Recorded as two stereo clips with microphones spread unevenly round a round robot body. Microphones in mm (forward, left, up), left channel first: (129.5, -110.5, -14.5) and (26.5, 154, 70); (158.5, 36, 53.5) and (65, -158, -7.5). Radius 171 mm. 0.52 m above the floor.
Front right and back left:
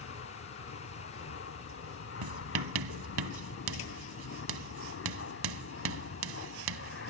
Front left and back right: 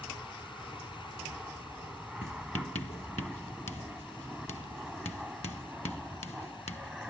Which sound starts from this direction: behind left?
Writing, at 2.2 s.